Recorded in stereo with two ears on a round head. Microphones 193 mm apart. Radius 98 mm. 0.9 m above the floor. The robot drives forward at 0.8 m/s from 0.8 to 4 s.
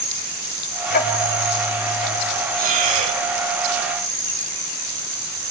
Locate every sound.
0.9 s ticking: 45° left (ahead or behind), 3.5 m; by 2.2 s 35° left (ahead or behind), 4 m
2.6 s breathing: 40° right (ahead or behind), 1.6 m; by 3.2 s 30° right (ahead or behind), 2.0 m